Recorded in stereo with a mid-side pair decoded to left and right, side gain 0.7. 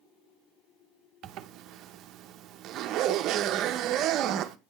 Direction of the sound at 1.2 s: 50° right.